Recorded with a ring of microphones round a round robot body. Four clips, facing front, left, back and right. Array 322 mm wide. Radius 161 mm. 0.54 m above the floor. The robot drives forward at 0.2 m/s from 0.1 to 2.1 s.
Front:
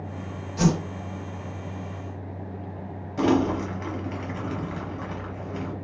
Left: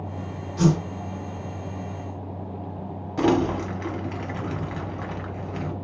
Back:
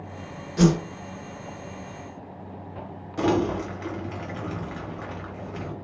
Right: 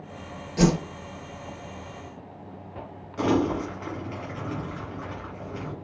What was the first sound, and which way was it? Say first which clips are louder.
A whoosh: even, back 3 dB; 125° right.